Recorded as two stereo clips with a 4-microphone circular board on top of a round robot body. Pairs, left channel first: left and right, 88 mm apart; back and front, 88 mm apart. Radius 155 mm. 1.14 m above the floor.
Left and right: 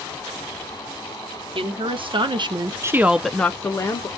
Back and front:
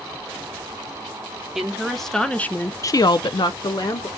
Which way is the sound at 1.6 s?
85° right.